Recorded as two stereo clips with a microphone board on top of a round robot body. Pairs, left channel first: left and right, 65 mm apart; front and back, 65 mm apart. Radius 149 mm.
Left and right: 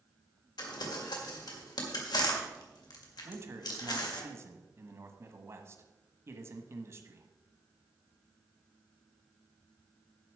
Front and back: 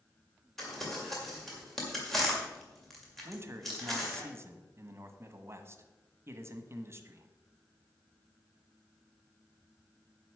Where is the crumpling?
85° left, 2.0 m.